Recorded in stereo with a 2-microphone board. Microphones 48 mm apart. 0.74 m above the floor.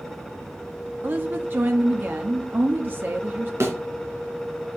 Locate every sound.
1.0 s a woman speaking: 45° right (ahead or behind), 0.8 m
3.6 s a thud: 70° right (ahead or behind), 2.5 m